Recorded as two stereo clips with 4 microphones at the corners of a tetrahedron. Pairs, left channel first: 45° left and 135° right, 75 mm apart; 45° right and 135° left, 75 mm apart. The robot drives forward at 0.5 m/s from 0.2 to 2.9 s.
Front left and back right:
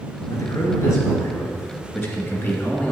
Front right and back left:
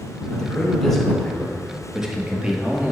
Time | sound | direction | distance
0.3 | a man speaking | 30° left | 2 m